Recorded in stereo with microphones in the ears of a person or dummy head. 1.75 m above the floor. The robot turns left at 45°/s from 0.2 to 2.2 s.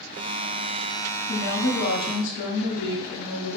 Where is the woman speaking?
115° left, 1.0 m; by 3.6 s 75° left, 1.0 m.